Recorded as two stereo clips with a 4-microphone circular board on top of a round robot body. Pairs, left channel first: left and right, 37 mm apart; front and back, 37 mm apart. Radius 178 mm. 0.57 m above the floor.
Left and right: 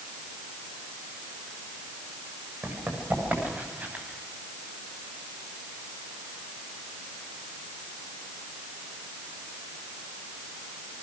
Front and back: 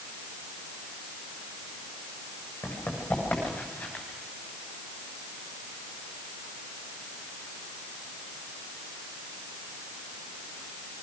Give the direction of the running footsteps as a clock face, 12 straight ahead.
2 o'clock.